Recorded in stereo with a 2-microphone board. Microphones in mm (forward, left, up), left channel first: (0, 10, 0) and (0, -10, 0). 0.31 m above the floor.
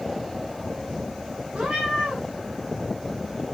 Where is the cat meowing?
80° right, 7 m.